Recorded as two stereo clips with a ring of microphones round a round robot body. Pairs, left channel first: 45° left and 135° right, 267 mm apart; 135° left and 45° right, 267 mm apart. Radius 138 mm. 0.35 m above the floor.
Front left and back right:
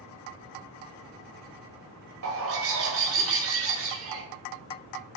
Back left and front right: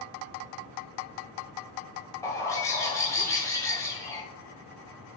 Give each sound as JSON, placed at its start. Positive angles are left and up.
{"t": 2.2, "sound": "a bird", "azimuth_deg": -150, "distance_m": 1.7}